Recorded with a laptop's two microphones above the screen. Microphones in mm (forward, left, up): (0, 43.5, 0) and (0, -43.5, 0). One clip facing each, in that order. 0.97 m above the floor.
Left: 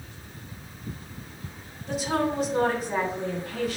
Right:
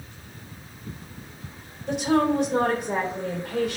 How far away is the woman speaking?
About 3.5 m.